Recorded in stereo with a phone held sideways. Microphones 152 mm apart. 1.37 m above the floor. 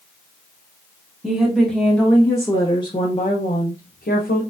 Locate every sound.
1.2 s a woman speaking: 5° right (ahead or behind), 1.5 m; by 4.4 s 75° left (ahead or behind), 1.0 m